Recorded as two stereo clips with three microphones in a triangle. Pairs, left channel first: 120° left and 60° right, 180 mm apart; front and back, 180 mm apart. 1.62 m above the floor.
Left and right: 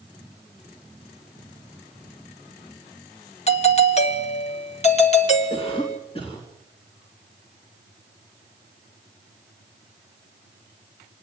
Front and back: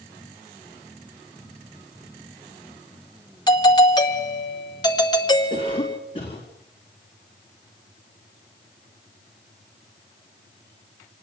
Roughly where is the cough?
Ahead left.